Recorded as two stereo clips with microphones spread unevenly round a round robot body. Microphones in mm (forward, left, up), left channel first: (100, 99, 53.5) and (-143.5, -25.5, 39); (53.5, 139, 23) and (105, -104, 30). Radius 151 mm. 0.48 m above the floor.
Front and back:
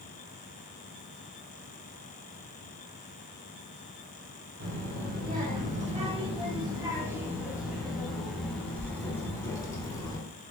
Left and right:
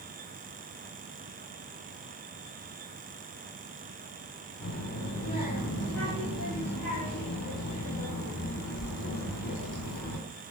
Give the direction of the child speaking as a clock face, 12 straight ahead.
7 o'clock.